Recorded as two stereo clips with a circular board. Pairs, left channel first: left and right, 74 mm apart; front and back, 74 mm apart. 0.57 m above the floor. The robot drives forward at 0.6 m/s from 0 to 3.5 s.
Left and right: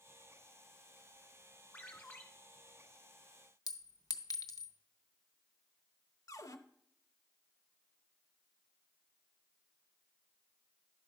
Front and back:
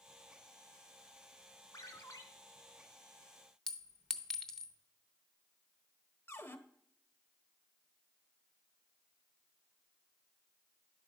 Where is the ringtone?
25° left, 1.6 m; by 2.2 s 30° left, 1.3 m.